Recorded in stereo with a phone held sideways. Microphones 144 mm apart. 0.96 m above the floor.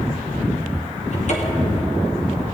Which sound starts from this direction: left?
A cupboard door, at 1.1 s.